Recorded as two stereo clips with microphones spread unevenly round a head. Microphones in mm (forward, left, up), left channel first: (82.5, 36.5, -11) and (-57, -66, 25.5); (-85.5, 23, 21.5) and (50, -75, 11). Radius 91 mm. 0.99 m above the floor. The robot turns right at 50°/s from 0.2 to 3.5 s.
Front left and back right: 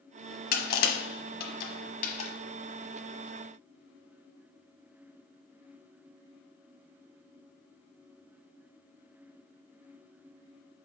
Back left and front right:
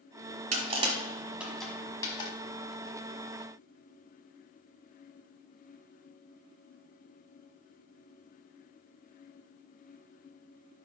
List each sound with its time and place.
0.5 s crushing: 5° left, 1.1 m; by 2.3 s 95° left, 1.1 m